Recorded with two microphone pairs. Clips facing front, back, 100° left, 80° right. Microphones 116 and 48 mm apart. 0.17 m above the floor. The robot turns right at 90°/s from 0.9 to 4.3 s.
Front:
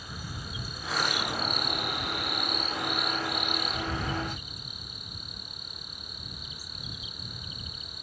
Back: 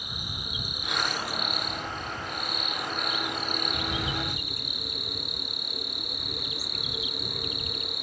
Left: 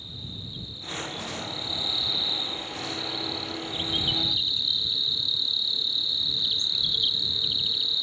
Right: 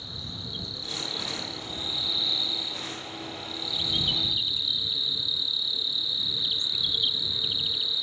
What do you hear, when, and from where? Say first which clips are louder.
0.0 s an insect: back 1 dB, right 1 dB; 105° right; by 8.0 s 160° right